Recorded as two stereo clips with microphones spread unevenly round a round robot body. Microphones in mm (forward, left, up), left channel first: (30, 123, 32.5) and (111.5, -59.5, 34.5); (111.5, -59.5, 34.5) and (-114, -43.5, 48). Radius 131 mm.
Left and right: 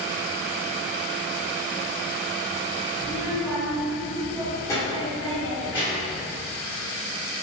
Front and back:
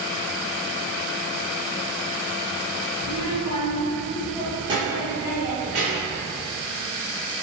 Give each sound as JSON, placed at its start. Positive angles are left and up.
{"t": 3.0, "sound": "a child speaking", "azimuth_deg": 15, "distance_m": 1.3}